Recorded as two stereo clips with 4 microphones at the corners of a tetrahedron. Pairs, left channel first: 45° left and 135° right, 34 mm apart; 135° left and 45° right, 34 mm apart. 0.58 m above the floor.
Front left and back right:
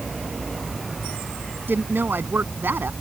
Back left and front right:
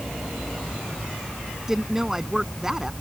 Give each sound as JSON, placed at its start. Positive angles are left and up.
{"t": 1.7, "sound": "a woman speaking", "azimuth_deg": -125}